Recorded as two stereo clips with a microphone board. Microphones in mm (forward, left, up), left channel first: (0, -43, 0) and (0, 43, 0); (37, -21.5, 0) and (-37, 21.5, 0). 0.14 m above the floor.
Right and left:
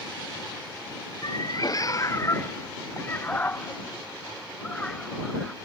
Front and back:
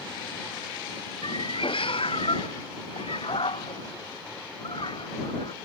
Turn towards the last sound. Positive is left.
turn(degrees=-5)